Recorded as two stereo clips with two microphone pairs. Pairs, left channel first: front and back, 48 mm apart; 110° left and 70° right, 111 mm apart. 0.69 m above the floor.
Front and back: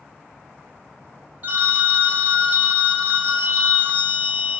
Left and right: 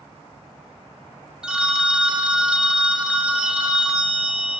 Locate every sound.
1.4 s a phone ringing: 150° right, 0.6 m